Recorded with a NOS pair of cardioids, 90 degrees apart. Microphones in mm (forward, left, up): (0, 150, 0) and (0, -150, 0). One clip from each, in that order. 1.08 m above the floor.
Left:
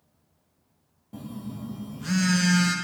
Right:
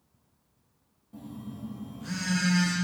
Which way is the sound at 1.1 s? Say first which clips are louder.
Left 4 dB; 45° left.